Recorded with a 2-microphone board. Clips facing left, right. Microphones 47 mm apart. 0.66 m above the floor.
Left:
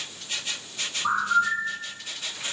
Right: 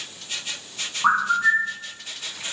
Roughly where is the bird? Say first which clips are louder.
Right 4 dB; right.